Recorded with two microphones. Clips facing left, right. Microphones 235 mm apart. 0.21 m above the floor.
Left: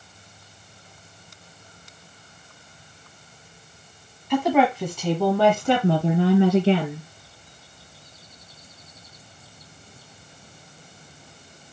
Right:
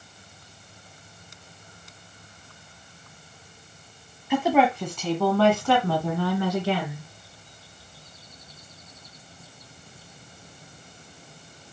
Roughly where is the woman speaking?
Centre.